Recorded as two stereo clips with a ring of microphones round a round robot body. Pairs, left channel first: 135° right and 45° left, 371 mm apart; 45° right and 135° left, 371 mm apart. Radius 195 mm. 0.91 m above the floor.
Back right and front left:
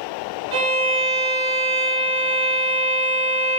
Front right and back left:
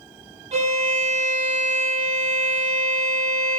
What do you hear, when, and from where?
0.5 s a violin: 60° left, 1.1 m